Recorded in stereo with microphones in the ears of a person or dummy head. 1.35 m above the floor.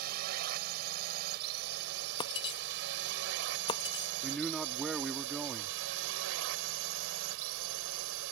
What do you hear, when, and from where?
0.0 s a drone: 55° right (ahead or behind); by 8.3 s 80° right
2.2 s breaking glass: 25° left (ahead or behind)
4.2 s a man speaking: centre (ahead or behind)